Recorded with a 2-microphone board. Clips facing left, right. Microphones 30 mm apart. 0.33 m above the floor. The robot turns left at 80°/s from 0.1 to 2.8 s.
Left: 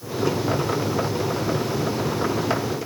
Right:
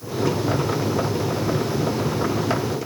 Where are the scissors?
No scissors in this recording.